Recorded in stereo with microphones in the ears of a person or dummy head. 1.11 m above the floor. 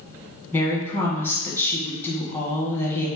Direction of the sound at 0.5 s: 15° left (ahead or behind).